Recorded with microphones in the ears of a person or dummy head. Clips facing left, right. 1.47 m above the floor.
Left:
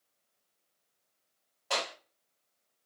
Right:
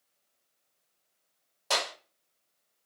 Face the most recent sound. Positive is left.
turn(degrees=-60)  # may be behind; listen again after turning